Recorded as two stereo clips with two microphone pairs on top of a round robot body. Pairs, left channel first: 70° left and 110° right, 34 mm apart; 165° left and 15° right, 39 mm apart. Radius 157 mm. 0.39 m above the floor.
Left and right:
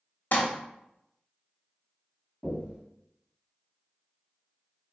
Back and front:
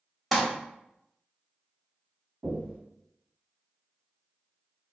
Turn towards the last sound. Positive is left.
turn(degrees=5)